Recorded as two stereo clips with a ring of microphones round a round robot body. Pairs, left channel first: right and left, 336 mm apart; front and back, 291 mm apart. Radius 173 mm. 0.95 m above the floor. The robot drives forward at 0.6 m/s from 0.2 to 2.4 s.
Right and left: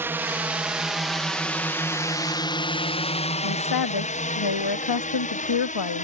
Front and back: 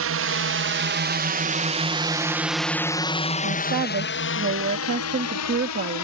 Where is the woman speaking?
120° right.